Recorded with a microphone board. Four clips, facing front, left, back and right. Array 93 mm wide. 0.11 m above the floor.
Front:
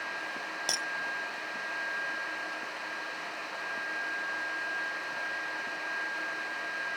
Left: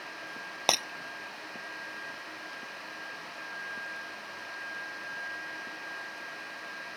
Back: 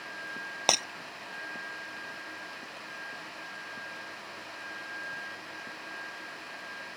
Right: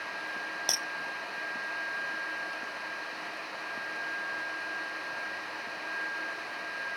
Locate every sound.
0.7 s breaking glass: 135° left